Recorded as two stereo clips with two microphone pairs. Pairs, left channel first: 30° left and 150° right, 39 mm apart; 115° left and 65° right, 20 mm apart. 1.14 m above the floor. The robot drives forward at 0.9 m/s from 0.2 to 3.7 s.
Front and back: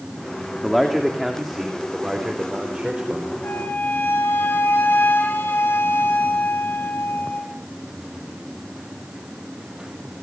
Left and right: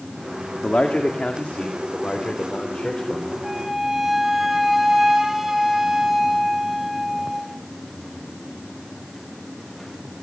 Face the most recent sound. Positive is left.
turn(degrees=15)